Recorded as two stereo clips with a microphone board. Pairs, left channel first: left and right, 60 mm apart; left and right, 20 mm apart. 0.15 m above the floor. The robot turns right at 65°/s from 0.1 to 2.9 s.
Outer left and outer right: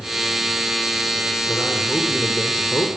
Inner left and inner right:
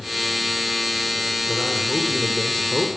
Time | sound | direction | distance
1.5 | a man speaking | 25° right | 5.5 m